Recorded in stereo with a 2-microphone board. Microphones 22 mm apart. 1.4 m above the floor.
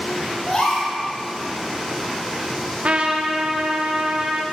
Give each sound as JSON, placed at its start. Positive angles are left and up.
{"t": 0.5, "sound": "a gasp", "side_deg": 35, "distance_m": 3.0}
{"t": 2.8, "sound": "a trumpet", "side_deg": -50, "distance_m": 0.9}